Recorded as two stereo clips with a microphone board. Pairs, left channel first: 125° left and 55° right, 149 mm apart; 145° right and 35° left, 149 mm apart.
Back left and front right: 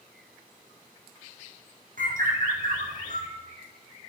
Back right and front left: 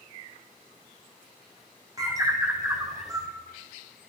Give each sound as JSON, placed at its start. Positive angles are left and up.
{"t": 2.0, "sound": "a bird", "azimuth_deg": -30, "distance_m": 2.5}